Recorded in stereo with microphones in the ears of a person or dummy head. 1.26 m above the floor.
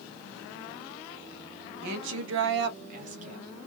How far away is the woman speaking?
About 0.7 m.